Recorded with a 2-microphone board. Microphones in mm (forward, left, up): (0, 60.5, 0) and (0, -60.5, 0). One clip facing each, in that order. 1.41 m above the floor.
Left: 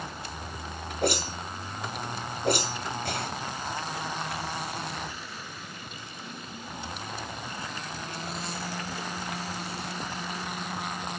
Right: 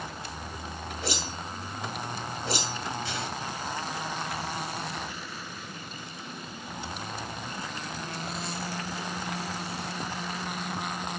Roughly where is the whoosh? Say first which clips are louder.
Left 7 dB; left.